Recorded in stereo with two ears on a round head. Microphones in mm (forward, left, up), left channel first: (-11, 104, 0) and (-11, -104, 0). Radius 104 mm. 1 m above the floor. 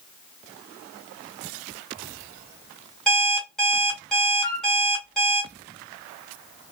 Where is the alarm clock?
Centre (ahead or behind), 2 m.